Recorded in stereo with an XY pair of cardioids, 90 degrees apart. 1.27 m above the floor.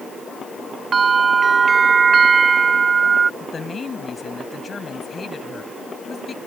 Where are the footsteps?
I don't hear footsteps.